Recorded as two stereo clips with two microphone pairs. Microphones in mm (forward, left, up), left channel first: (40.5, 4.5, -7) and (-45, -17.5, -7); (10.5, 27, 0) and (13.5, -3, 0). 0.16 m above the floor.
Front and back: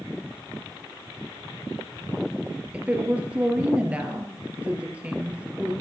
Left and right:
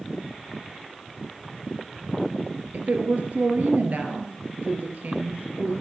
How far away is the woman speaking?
About 2.5 m.